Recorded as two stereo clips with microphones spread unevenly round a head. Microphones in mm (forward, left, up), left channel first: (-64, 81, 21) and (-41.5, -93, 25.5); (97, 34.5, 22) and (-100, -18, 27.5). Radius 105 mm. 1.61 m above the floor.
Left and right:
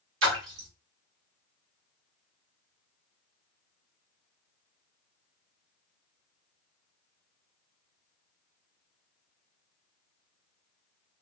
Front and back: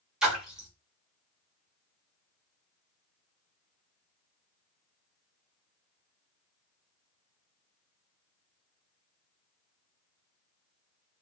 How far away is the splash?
About 1.5 m.